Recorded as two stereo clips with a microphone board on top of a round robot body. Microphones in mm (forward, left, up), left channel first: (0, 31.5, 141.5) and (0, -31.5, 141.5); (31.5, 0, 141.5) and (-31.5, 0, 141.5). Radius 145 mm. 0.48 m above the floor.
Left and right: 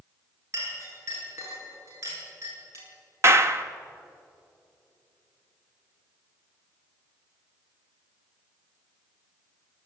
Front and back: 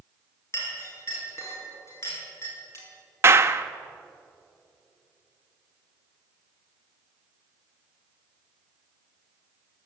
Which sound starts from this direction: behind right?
A clap, at 3.2 s.